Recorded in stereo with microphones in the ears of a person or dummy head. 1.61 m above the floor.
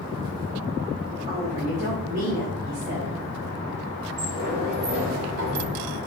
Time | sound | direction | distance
1.3 | a woman speaking | 50° right (ahead or behind) | 4.5 m
4.2 | a sliding door | 75° right (ahead or behind) | 3 m